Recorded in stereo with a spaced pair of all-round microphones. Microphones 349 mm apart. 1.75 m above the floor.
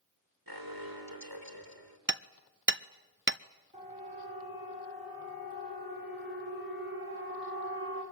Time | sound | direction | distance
0.5 | an alarm | 80° right | 3 m
2.1 | hammering | 35° right (ahead or behind) | 0.5 m
3.7 | a siren | 15° right (ahead or behind) | 7 m